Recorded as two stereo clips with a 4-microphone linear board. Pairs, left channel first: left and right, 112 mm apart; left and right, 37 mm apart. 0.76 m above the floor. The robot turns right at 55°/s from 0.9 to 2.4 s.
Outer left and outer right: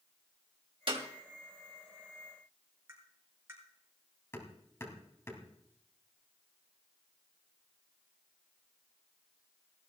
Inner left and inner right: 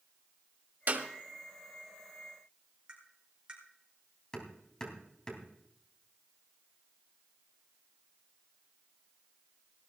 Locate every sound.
0.9 s a clap: 50° right (ahead or behind), 2 m; by 1.1 s 60° right (ahead or behind), 2 m
2.9 s tapping: 25° right (ahead or behind), 6 m
4.3 s hammering: 25° left (ahead or behind), 3 m